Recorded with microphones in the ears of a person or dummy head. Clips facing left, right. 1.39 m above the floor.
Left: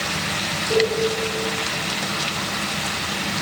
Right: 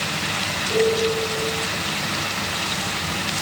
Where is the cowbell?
40° left (ahead or behind), 7.5 m.